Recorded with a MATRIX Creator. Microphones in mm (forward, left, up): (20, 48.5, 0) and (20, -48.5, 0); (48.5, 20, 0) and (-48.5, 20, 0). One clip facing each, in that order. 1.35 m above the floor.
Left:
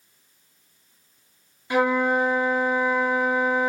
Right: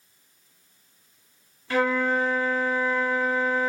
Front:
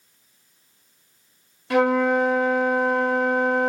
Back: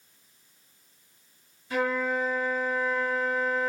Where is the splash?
No splash in this recording.